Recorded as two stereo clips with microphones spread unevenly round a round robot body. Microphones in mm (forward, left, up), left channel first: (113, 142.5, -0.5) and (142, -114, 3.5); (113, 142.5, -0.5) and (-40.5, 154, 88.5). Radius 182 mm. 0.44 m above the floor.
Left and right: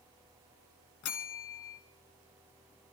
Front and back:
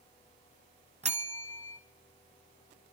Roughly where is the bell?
Behind left.